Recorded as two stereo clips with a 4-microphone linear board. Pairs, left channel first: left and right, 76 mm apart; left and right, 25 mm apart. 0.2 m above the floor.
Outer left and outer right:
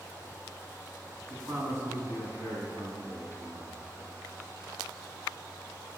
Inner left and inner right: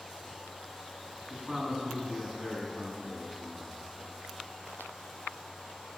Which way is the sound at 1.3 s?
35° right (ahead or behind).